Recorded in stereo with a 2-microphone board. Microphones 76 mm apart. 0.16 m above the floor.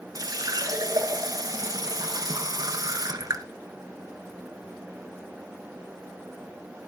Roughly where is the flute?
No flute in this recording.